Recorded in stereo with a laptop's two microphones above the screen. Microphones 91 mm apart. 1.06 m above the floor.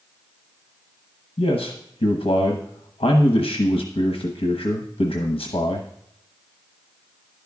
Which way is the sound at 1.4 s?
85° left.